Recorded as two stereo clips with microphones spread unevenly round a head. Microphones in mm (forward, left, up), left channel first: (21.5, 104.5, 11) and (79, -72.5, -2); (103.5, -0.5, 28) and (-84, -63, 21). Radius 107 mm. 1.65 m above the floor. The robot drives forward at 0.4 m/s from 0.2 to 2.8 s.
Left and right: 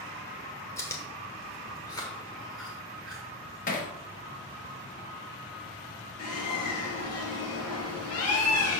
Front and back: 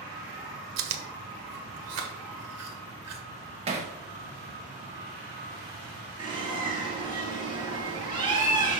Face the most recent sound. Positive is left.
turn(degrees=130)